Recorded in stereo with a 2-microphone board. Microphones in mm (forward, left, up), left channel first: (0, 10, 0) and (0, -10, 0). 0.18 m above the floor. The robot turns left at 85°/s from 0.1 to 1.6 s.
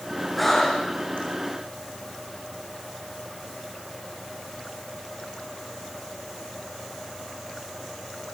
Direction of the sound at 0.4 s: Centre (ahead or behind).